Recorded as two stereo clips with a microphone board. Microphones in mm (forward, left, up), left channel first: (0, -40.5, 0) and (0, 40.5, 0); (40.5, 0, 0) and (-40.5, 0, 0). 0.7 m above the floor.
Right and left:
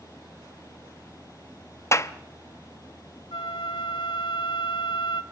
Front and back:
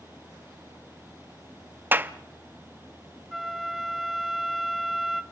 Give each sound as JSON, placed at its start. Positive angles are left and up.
{"t": 1.9, "sound": "a clap", "azimuth_deg": -125, "distance_m": 0.7}
{"t": 3.3, "sound": "a flute", "azimuth_deg": -90, "distance_m": 1.2}